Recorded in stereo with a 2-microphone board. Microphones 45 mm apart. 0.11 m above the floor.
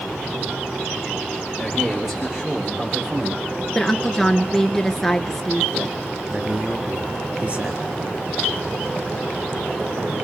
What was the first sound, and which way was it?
A man speaking, 5° right (ahead or behind).